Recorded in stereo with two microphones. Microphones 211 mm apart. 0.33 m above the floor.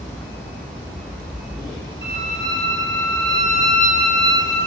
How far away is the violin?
About 7 m.